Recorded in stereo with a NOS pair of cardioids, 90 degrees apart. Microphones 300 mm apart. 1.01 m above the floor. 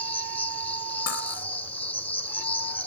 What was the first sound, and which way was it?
An insect, 5° left.